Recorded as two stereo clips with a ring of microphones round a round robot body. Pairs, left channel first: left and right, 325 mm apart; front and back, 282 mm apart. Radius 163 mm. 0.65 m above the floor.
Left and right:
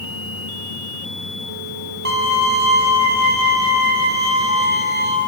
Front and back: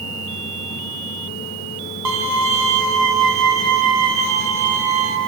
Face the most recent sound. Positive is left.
turn(degrees=-150)